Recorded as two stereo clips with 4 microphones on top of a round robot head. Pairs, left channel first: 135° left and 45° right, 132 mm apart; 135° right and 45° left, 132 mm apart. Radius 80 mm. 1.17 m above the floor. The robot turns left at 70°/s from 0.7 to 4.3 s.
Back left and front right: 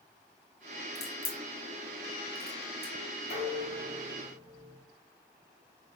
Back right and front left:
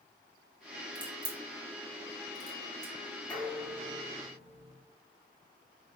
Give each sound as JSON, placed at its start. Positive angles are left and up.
{"t": 0.9, "sound": "a crack", "azimuth_deg": 130, "distance_m": 1.1}
{"t": 3.3, "sound": "dishes clattering", "azimuth_deg": 150, "distance_m": 1.7}